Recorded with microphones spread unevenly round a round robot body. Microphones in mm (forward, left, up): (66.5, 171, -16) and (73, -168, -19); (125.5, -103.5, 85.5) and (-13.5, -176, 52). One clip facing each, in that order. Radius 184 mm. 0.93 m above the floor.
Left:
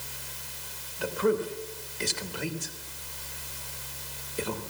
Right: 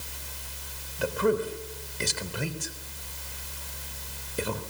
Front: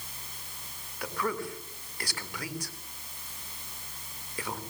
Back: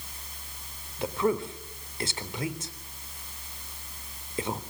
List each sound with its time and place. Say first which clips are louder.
1.0 s a man speaking: right 1 dB, back 6 dB; 85° right, 3 m